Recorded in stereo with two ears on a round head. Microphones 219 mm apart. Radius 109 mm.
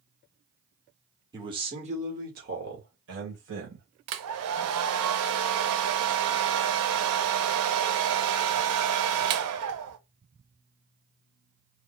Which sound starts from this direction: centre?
A man speaking, at 1.3 s.